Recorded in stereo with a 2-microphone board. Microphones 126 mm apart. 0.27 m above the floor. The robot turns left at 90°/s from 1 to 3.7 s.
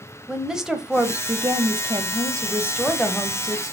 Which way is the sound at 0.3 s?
10° right.